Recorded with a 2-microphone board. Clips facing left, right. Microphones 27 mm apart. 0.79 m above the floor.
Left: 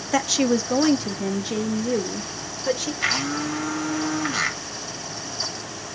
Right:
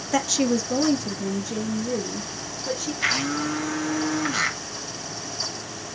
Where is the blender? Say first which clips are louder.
Even; 5° left (ahead or behind), 3 m.